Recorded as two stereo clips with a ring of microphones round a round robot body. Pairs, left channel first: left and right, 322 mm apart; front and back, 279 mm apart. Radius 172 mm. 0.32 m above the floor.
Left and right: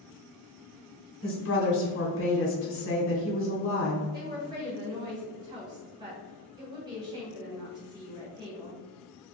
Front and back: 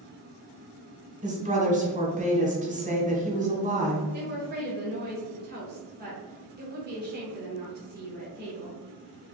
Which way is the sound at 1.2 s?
125° left.